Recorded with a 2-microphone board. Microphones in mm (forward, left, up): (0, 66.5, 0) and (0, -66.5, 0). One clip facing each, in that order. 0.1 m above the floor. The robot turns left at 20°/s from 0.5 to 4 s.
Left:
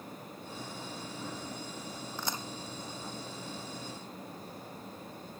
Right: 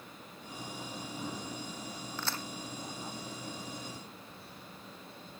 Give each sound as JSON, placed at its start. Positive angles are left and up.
{"t": 2.2, "sound": "a crack", "side_deg": 15}